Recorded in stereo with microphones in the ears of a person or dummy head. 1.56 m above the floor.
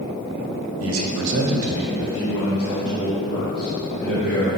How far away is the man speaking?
About 0.8 m.